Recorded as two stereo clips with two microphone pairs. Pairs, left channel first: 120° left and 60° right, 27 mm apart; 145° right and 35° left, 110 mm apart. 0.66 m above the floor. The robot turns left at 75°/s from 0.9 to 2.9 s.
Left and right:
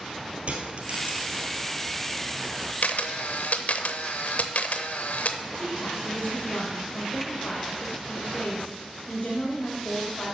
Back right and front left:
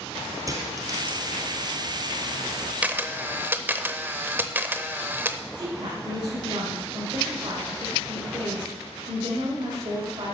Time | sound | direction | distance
0.5 | a dropped coin | 25° right | 1.6 m
2.8 | a camera shutter | 115° left | 0.7 m
5.5 | a woman speaking | 75° left | 2.5 m